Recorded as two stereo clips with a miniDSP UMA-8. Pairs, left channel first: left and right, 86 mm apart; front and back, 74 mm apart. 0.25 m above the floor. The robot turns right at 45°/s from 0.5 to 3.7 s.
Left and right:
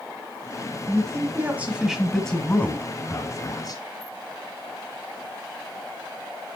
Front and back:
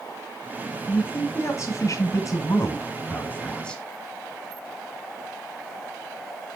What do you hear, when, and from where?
0.9 s a man speaking: 50° right, 1.6 m; by 3.8 s 80° left, 1.6 m